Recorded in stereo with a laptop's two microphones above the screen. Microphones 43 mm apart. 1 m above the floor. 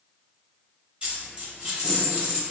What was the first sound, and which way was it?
A dropped coin, 25° right (ahead or behind).